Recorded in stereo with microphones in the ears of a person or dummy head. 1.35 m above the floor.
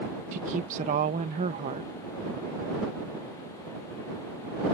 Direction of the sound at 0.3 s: 40° right (ahead or behind).